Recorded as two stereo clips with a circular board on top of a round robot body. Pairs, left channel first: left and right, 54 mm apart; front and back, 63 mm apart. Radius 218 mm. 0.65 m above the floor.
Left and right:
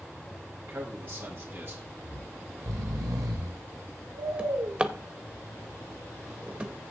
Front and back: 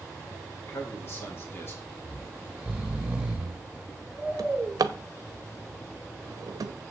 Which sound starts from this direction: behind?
A drawer, at 4.4 s.